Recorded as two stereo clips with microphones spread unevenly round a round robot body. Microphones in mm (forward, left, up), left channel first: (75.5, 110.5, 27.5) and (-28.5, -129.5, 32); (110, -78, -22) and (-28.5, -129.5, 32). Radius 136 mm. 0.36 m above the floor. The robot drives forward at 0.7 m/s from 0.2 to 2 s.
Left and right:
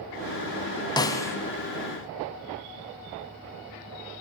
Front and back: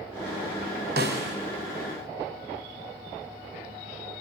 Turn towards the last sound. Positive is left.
turn(degrees=155)